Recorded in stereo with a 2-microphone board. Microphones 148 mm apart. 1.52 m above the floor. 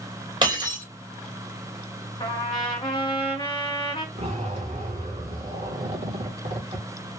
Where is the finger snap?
No finger snap in this recording.